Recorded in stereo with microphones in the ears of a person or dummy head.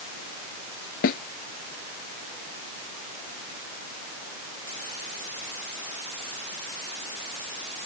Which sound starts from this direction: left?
A snare drum, at 1.0 s.